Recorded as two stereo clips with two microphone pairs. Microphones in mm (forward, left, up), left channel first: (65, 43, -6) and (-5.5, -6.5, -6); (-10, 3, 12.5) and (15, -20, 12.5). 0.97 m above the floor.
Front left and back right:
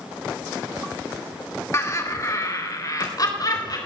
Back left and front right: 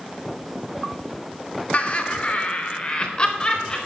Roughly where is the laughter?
Left.